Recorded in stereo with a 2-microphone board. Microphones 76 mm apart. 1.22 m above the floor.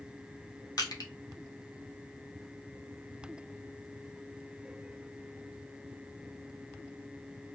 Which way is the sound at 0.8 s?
60° left (ahead or behind).